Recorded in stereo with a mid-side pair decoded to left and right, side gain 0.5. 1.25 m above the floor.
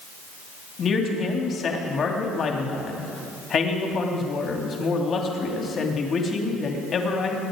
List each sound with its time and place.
0.8 s a man speaking: 45° left, 2.5 m